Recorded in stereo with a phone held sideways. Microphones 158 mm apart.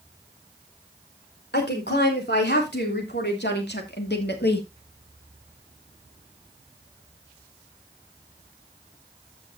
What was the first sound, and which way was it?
A woman speaking, 85° left.